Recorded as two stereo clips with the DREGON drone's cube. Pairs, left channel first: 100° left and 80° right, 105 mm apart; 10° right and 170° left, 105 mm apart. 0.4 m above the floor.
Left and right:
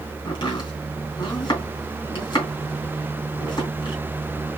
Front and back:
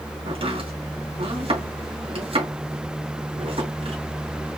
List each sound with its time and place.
0.2 s chopping: 145° left, 2.5 m